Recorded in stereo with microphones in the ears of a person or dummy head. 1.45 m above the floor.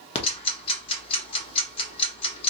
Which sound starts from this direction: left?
Ticking, at 0.1 s.